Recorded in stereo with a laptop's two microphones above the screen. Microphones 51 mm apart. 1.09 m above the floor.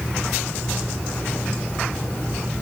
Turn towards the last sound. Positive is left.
No sound to turn to.